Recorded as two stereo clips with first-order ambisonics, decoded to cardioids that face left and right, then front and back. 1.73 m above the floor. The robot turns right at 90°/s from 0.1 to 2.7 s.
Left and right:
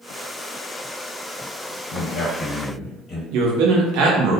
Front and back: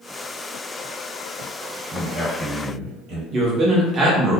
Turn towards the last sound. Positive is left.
turn(degrees=-115)